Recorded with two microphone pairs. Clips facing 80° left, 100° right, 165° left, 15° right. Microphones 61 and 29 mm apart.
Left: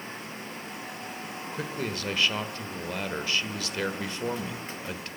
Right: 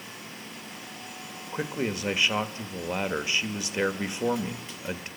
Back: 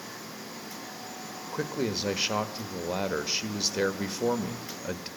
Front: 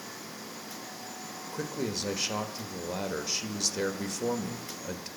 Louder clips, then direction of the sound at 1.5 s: Right 4 dB, back 3 dB; 155° right.